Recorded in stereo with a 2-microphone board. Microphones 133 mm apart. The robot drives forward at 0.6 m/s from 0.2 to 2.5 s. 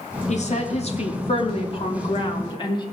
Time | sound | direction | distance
0.3 | a woman speaking | 55° left (ahead or behind) | 2.5 m